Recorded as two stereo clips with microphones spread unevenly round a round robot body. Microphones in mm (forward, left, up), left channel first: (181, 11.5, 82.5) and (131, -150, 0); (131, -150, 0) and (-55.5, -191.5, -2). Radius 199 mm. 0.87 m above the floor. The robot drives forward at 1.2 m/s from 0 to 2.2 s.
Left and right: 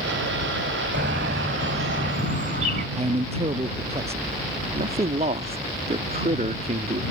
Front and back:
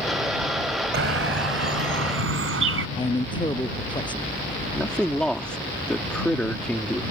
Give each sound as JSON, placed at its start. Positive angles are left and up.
{"t": 0.9, "sound": "a bird", "azimuth_deg": -175}
{"t": 3.0, "sound": "a man speaking", "azimuth_deg": -55}
{"t": 4.7, "sound": "a man speaking", "azimuth_deg": -70}